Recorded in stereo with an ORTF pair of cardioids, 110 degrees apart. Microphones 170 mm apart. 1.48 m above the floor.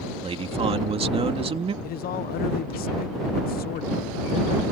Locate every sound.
0.2 s a man speaking: 35° right
1.8 s a man speaking: 60° left